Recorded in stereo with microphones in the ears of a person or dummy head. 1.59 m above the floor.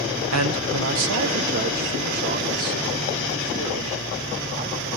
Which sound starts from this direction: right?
A man speaking, at 0.3 s.